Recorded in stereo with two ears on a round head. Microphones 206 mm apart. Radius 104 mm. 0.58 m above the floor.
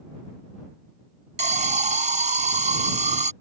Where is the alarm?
30° right (ahead or behind).